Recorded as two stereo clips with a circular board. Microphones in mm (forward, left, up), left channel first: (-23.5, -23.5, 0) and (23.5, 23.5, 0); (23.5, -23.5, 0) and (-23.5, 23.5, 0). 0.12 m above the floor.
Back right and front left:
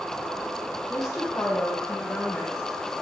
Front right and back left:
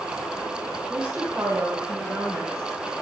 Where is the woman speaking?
155° right, 5 m; by 2.9 s straight behind, 6.5 m.